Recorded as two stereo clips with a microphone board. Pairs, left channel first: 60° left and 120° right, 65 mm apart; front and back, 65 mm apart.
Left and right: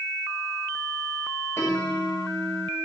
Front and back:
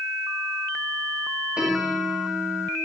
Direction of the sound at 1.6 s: 105° left.